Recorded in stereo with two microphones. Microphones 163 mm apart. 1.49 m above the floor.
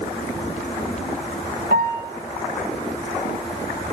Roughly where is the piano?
Right.